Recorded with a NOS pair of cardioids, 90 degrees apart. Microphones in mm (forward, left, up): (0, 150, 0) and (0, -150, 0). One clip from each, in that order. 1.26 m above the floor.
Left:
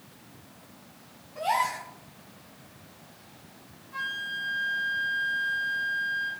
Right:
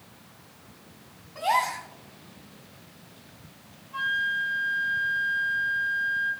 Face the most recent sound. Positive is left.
turn(degrees=40)